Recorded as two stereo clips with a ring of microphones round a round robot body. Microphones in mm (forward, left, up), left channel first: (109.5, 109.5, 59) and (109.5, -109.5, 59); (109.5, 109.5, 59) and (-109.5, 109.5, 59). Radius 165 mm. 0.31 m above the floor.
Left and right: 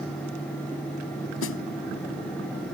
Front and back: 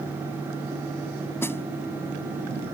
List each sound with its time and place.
1.4 s a snare drum: 80° left